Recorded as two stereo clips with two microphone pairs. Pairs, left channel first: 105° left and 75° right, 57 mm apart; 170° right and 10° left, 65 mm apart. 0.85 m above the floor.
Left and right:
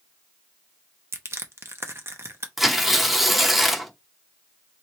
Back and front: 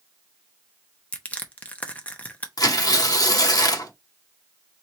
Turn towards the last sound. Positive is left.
turn(degrees=-160)